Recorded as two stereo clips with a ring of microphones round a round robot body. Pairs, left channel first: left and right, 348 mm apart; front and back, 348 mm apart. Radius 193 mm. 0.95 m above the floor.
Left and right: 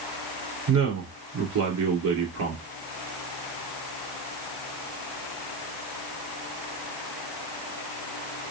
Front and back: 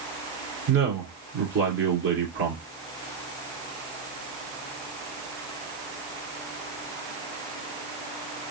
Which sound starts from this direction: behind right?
A man speaking, at 0.7 s.